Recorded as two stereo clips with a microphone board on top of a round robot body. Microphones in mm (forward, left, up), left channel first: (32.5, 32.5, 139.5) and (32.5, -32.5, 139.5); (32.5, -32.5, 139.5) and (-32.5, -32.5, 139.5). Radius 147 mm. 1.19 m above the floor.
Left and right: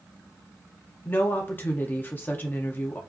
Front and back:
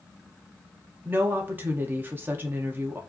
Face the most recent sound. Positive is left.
turn(degrees=135)